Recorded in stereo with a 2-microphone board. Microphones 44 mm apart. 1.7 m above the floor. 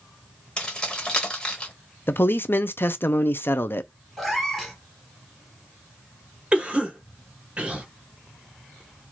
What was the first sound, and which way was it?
Keys jangling, 20° left (ahead or behind).